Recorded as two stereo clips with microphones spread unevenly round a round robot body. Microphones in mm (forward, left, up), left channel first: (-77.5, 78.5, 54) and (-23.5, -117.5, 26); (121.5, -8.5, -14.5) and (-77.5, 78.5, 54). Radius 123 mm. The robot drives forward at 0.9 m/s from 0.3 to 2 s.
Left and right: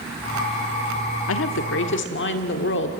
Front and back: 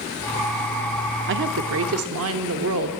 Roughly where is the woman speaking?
Behind left.